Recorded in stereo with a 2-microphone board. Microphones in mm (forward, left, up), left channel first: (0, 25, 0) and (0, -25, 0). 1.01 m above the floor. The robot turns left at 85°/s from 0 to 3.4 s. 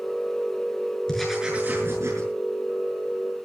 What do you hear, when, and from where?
1.1 s writing: 10° left, 6.5 m; by 2.3 s 90° right, 6.5 m